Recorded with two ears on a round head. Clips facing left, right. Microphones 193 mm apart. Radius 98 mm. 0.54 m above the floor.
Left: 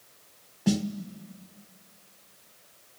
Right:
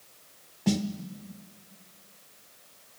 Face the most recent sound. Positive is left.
turn(degrees=5)  # may be behind; listen again after turning